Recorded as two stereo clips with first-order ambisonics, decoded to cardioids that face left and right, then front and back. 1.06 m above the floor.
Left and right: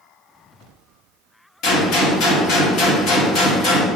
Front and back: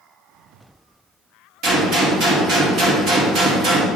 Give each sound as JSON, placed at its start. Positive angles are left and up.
{"t": 1.6, "sound": "a gunshot", "azimuth_deg": 135, "distance_m": 2.5}